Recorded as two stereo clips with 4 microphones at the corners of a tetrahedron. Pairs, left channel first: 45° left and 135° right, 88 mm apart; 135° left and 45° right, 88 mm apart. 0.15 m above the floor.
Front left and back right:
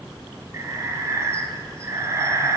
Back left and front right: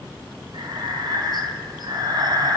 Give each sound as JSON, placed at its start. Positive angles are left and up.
{"t": 0.5, "sound": "breathing", "azimuth_deg": -80, "distance_m": 0.6}